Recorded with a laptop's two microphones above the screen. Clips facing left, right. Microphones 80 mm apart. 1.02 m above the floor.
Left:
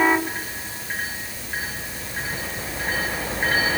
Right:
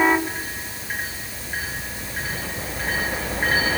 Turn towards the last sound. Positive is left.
No sound to turn to.